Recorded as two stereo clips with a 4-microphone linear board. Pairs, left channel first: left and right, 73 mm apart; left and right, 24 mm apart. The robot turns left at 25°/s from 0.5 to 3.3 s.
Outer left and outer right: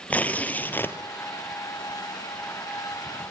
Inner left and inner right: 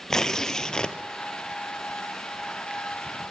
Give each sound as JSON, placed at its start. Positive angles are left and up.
{"t": 0.1, "sound": "tearing paper", "side_deg": 20, "distance_m": 1.7}